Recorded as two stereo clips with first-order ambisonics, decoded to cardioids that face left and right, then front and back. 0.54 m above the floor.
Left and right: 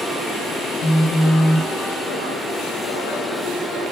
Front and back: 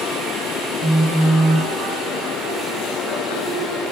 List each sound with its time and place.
0.8 s a phone buzzing: 110° left, 1.1 m